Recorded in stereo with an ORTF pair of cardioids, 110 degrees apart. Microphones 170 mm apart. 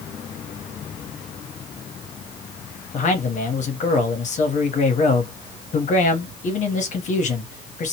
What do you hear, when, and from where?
2.9 s a man speaking: 50° left, 1.2 m